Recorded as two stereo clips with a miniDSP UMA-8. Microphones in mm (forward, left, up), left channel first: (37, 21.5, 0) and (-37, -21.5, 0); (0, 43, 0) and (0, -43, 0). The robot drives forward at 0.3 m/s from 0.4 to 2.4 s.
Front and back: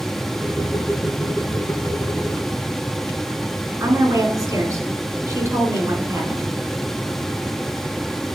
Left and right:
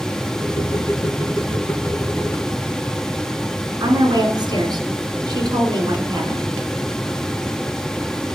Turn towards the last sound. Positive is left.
turn(degrees=-110)